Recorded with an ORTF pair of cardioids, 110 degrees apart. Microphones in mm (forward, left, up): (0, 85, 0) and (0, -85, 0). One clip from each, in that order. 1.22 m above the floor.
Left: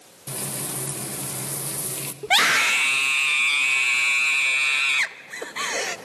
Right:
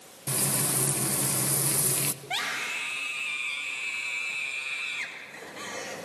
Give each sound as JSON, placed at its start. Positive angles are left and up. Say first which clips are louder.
{"t": 0.3, "sound": "frying", "louder": "right 2 dB", "azimuth_deg": -15, "distance_m": 1.2}
{"t": 2.2, "sound": "a scream", "louder": "left 15 dB", "azimuth_deg": 70, "distance_m": 1.4}